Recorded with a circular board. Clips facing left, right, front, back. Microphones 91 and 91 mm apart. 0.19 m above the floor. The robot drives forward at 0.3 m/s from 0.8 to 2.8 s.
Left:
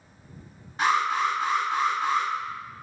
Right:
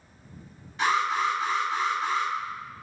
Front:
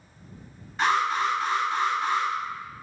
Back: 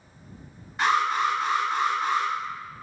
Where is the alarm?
90° left, 1.4 m; by 2.3 s 120° left, 1.5 m.